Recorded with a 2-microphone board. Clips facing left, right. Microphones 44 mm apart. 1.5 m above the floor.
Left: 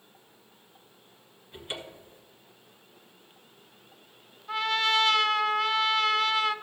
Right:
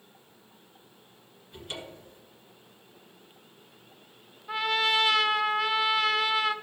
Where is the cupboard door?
20° left (ahead or behind), 1.9 m.